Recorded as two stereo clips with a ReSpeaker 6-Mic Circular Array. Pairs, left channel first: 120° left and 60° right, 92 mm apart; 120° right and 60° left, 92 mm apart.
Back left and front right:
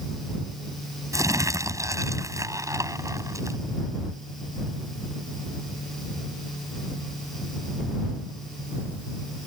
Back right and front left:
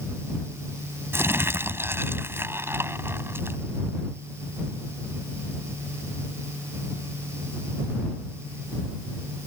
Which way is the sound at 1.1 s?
5° right.